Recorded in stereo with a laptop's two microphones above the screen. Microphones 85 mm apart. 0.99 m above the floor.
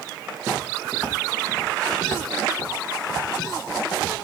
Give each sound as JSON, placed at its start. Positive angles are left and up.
{"t": 0.4, "sound": "footsteps", "side_deg": 10, "distance_m": 4.0}